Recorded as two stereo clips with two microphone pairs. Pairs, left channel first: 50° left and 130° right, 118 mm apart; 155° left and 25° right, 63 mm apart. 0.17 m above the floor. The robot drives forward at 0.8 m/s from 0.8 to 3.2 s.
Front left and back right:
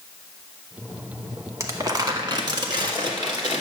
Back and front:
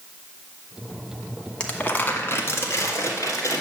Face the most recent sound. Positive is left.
turn(degrees=-175)